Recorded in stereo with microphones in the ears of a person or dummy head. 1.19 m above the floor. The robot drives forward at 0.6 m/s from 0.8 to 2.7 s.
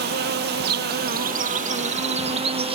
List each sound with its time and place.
0.0 s an insect: 45° right (ahead or behind); by 2.8 s 25° right (ahead or behind)